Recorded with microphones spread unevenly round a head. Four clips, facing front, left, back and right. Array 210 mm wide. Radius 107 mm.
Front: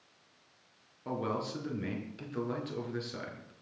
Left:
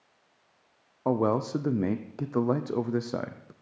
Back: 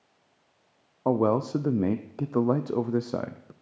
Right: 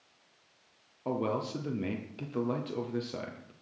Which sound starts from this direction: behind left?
A man speaking, at 1.1 s.